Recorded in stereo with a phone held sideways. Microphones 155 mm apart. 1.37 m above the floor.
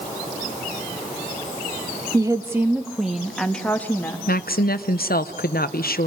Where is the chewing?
I don't hear chewing.